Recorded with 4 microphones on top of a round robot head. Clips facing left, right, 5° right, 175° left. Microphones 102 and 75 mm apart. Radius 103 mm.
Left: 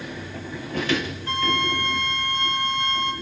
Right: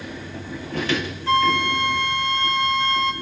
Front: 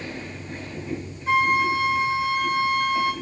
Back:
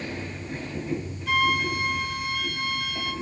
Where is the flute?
75° right, 2 m.